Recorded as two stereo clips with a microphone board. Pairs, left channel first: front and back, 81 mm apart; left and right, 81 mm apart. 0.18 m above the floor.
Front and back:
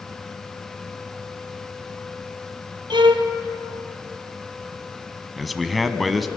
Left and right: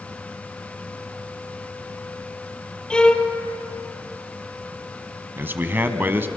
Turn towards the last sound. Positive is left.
turn(degrees=-90)